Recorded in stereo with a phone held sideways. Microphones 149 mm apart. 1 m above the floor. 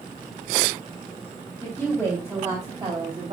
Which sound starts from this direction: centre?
A woman speaking, at 1.6 s.